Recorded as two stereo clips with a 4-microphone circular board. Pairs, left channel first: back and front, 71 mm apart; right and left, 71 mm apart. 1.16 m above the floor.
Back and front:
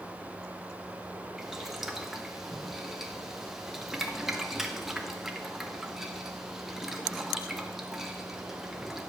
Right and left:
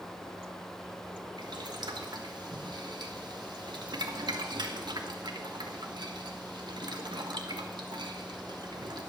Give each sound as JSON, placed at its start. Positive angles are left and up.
{"t": 1.4, "sound": "boiling", "azimuth_deg": 85, "distance_m": 1.2}